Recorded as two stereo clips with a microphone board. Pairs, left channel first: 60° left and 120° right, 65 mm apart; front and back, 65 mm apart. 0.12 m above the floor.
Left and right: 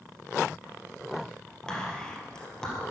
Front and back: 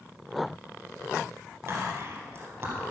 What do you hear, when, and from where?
1.7 s whispering: 135° left, 3 m